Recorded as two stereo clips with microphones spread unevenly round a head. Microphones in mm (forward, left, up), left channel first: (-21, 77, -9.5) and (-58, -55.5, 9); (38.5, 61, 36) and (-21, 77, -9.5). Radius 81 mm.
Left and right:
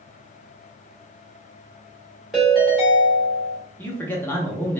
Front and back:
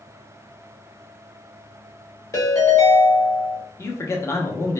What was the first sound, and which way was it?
A ringtone, 20° right.